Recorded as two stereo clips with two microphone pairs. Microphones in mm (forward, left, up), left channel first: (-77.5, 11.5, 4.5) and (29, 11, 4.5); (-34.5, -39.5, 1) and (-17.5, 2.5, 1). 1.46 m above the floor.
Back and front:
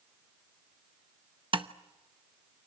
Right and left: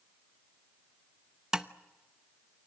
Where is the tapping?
10° right, 0.9 m.